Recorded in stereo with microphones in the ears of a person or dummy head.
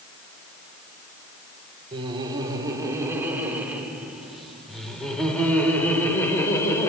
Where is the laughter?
30° right (ahead or behind), 4 m; by 6.9 s 15° left (ahead or behind), 6 m.